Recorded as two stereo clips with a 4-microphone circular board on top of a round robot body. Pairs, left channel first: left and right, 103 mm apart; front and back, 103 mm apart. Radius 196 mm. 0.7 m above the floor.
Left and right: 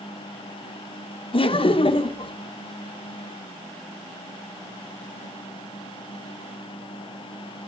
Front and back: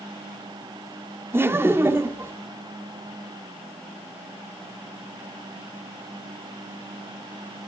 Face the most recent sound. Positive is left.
turn(degrees=115)